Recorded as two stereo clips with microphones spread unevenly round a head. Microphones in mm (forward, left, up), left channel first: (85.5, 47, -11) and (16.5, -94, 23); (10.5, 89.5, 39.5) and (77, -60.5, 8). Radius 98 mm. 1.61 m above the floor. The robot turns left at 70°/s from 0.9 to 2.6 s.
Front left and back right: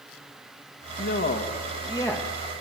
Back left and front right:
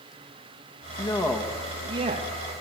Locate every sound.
1.0 s a man speaking: 65° left, 1.8 m; by 2.3 s 25° right, 1.8 m